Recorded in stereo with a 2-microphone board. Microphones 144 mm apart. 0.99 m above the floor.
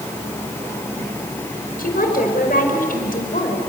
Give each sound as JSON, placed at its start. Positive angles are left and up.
{"t": 1.8, "sound": "a woman speaking", "side_deg": 80, "distance_m": 5.0}